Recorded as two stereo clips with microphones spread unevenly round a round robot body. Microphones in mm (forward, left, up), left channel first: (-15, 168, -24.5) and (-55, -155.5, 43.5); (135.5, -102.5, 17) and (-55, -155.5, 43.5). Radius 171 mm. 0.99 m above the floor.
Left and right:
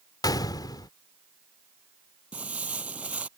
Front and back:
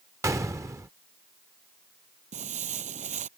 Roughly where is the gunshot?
Behind.